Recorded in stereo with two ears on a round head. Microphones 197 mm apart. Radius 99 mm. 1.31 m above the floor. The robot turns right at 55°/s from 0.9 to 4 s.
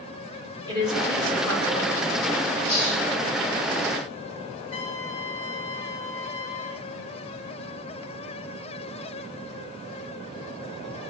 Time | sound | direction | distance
0.7 | a woman speaking | 20° right | 5 m
2.7 | a hiss | 90° left | 5 m
4.7 | a trumpet | 70° left (ahead or behind) | 5 m